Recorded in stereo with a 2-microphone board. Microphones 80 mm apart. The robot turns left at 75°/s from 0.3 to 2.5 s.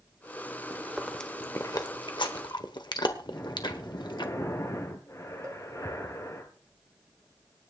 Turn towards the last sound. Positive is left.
turn(degrees=-35)  # may be behind; listen again after turning